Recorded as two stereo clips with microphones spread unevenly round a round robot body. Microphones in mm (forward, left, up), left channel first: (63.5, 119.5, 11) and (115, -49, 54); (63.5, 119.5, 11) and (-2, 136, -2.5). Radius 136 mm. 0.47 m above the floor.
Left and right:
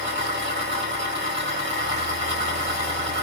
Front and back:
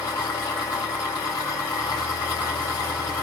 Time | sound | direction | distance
0.0 | an engine running | 55° right | 1.7 m